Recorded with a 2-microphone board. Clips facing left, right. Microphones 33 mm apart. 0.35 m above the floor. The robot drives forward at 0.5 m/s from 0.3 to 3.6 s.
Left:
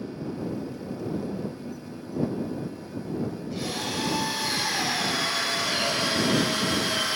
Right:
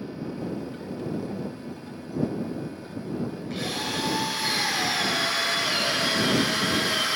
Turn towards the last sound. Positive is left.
turn(degrees=-70)  # may be behind; listen again after turning